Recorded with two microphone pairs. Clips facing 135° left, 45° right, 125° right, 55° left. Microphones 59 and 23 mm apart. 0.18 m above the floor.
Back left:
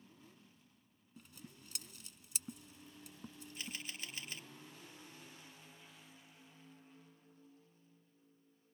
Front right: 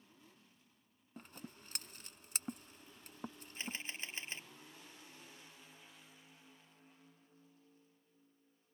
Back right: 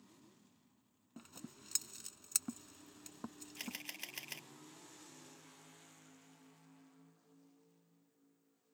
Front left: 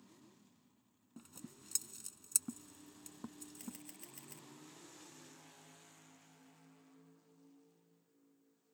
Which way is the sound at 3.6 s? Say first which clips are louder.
Front right 3 dB, back right 9 dB; 105° right.